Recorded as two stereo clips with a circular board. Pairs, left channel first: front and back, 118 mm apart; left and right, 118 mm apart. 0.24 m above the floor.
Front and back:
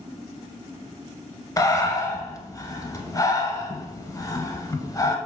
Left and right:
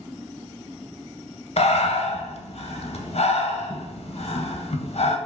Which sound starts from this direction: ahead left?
Breathing, at 1.6 s.